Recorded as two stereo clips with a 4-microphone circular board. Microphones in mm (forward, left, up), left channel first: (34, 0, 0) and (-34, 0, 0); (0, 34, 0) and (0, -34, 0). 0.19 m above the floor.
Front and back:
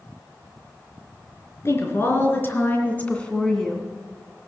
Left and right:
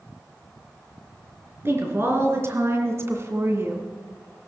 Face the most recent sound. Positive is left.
turn(degrees=-85)